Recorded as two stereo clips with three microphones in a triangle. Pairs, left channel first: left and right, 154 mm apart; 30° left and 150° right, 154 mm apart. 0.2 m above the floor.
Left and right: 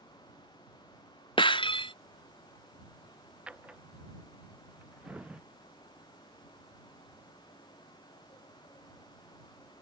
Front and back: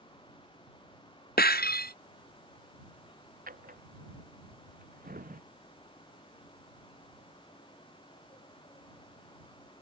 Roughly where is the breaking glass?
Ahead left.